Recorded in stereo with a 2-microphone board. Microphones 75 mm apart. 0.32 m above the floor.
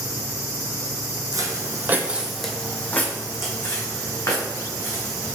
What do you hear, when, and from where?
1.3 s footsteps: 55° right (ahead or behind), 0.6 m; by 5.4 s 55° left (ahead or behind), 1.8 m